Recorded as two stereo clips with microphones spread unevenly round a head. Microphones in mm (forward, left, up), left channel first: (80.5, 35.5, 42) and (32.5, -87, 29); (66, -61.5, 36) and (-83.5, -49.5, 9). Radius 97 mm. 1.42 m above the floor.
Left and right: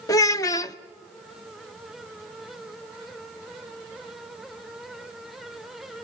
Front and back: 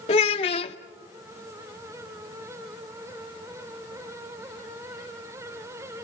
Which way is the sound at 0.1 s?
20° left.